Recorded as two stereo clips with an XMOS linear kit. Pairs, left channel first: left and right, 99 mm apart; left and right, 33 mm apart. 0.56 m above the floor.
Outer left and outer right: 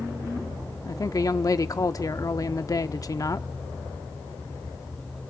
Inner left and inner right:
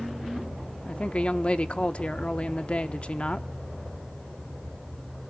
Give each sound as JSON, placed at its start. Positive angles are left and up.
{"t": 0.8, "sound": "a woman speaking", "side_deg": 35, "distance_m": 0.7}